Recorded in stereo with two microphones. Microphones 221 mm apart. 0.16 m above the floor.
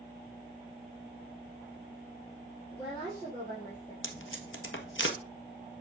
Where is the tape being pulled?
70° left (ahead or behind), 1.5 m.